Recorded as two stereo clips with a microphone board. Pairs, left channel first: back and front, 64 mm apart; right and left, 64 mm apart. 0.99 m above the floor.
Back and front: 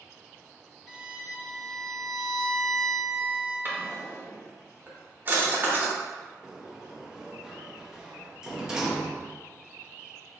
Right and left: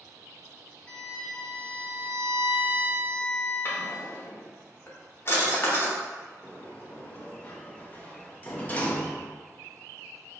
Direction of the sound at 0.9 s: 75° right.